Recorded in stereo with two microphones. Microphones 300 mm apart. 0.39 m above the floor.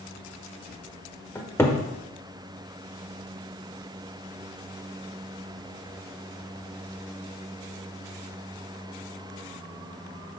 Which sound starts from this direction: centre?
A cupboard door, at 1.4 s.